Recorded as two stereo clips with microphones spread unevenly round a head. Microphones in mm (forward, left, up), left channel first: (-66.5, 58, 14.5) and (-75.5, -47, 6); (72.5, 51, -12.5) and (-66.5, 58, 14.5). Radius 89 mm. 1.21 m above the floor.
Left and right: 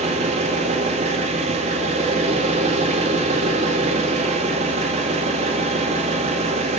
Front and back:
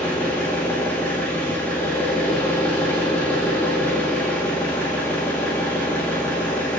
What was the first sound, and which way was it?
An engine running, 85° right.